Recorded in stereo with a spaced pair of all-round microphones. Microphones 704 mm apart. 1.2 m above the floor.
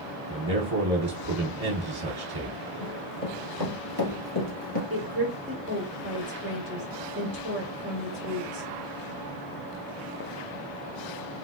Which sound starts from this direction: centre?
A woman speaking, at 4.9 s.